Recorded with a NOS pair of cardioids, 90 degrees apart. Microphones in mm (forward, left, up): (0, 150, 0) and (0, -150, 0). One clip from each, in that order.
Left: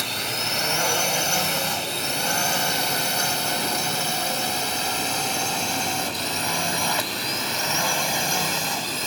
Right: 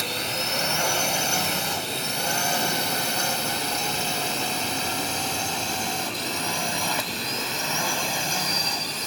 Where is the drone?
5° left; by 9.1 s 20° left.